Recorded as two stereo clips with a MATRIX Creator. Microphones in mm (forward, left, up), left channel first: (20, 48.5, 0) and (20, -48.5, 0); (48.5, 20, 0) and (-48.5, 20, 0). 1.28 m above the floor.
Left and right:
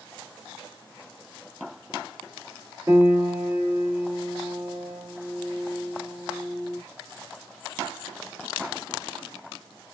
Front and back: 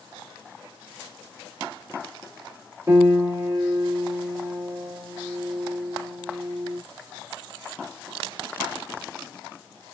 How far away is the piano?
About 1.1 m.